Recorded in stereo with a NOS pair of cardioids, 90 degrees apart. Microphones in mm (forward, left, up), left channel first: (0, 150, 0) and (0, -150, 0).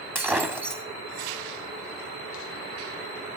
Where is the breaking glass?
5° right, 2 m.